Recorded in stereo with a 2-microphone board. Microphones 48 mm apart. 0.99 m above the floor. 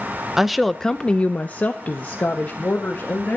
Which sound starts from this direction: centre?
A woman speaking, at 0.4 s.